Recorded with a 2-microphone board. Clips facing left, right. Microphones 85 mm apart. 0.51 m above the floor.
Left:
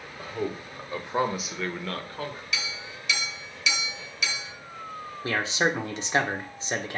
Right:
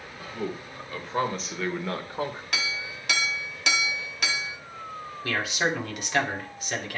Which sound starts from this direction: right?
A clink, at 2.5 s.